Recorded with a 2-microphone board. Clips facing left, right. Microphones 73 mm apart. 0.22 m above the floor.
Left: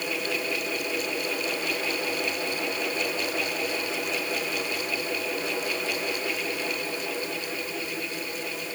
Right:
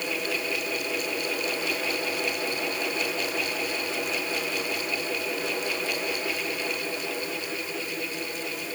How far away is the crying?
No crying in this recording.